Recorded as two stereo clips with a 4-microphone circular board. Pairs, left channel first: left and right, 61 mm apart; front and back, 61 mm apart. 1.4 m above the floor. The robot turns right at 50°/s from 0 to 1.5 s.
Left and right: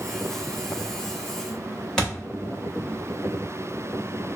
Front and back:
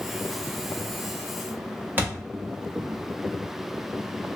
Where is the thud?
160° left, 1.0 m.